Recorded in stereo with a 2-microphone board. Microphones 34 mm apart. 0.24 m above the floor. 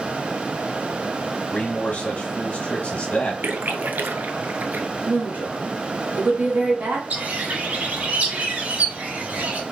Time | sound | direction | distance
1.5 | a man speaking | 45° left (ahead or behind) | 1.3 m
3.4 | a splash | 65° right (ahead or behind) | 0.5 m
5.1 | a woman speaking | 60° right (ahead or behind) | 2 m
7.1 | a bird | 55° right (ahead or behind) | 1.2 m